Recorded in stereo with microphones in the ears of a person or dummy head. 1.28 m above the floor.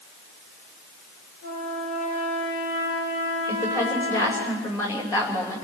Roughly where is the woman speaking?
Centre.